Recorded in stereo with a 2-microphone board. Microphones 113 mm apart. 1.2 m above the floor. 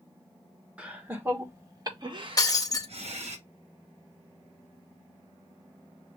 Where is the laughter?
10° right (ahead or behind), 1.4 m; by 3.4 s 75° right (ahead or behind), 1.2 m.